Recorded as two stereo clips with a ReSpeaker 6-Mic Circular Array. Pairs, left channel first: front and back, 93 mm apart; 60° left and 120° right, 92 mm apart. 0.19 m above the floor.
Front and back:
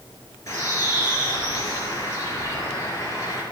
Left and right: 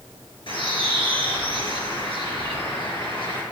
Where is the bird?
50° left, 4 m.